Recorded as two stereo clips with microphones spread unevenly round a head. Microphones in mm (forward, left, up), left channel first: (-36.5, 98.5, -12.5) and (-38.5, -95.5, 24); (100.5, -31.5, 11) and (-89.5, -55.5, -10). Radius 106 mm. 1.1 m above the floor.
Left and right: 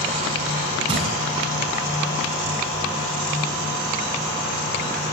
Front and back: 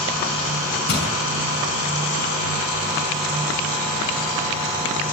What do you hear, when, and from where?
0.9 s crushing: 25° right, 7 m